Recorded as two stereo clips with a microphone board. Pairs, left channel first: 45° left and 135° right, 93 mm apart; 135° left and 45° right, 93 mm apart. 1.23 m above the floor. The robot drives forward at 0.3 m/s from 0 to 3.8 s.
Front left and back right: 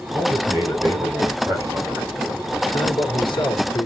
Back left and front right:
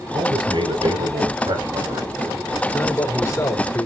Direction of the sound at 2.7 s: 75° left.